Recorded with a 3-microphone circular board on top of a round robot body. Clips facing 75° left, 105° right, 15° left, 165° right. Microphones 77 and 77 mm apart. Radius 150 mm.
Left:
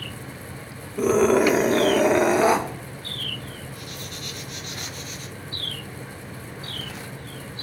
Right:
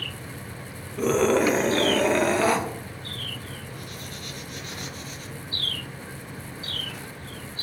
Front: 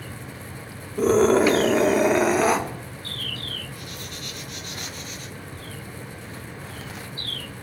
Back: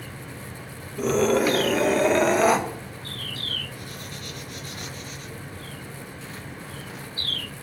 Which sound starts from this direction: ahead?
A scream, at 1.0 s.